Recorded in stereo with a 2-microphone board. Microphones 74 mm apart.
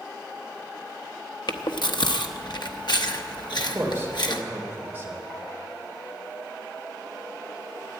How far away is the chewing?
About 0.9 m.